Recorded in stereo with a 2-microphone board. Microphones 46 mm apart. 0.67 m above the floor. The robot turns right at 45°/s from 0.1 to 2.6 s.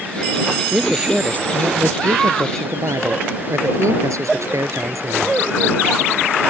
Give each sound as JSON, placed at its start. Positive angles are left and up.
{"t": 0.7, "sound": "a man speaking", "azimuth_deg": -175}